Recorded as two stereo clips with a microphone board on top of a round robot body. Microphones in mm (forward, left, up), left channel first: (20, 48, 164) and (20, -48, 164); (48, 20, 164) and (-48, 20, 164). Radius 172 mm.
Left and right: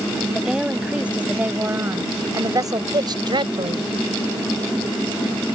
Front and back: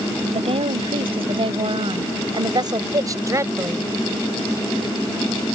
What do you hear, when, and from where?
0.3 s a woman speaking: 175° right; by 3.9 s 115° right